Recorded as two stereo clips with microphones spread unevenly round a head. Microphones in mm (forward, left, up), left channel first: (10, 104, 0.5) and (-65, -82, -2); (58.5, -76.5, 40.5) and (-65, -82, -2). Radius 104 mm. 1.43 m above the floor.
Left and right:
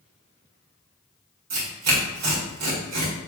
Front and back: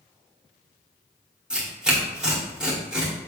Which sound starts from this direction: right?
Tearing paper, at 1.5 s.